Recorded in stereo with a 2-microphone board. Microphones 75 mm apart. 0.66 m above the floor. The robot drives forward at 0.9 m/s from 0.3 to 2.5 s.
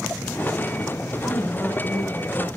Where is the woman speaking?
15° left (ahead or behind), 5.5 m; by 2.5 s 10° left (ahead or behind), 6.5 m.